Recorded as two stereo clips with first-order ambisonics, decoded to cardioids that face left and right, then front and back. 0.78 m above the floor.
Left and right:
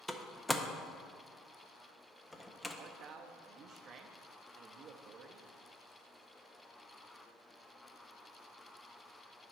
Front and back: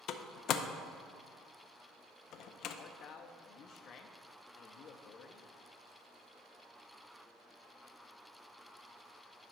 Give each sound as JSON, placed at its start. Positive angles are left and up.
{"t": 0.1, "sound": "a door slam", "azimuth_deg": 10, "distance_m": 0.5}
{"t": 2.8, "sound": "a man speaking", "azimuth_deg": -45, "distance_m": 0.7}